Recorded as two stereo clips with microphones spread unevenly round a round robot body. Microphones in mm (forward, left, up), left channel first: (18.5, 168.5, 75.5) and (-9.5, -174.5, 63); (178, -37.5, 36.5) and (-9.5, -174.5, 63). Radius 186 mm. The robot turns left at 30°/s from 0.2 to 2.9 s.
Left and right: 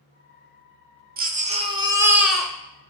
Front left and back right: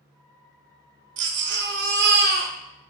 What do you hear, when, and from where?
1.2 s a baby crying: 145° right, 0.8 m; by 2.5 s 175° left, 0.8 m